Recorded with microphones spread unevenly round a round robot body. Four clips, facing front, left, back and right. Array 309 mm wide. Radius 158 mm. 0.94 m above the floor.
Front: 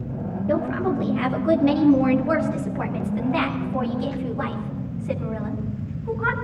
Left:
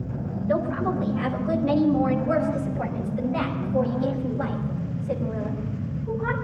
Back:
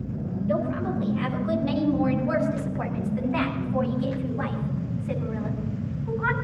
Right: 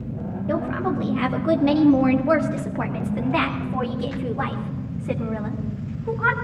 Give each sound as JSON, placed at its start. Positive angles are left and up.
{"t": 0.5, "sound": "a woman speaking", "azimuth_deg": -35, "distance_m": 1.7}